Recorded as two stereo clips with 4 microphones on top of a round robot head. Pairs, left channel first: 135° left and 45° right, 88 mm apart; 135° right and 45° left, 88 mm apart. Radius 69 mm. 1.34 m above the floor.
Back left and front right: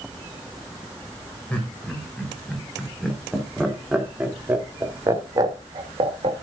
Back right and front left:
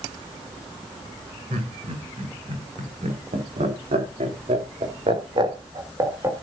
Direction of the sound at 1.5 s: 60° left.